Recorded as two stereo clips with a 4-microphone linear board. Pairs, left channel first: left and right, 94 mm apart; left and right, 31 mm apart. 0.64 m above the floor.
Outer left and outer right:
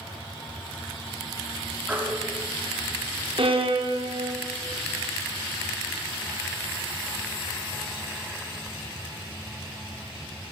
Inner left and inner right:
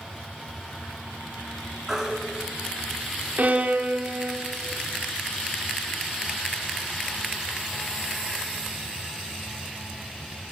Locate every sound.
1.9 s a baby crying: 15° right (ahead or behind), 3 m
3.4 s a violin: 60° right (ahead or behind), 1.0 m